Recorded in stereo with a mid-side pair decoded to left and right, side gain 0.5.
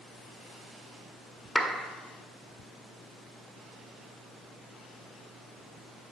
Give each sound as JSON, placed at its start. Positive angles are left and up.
{"t": 1.6, "sound": "a clap", "azimuth_deg": 0, "distance_m": 1.8}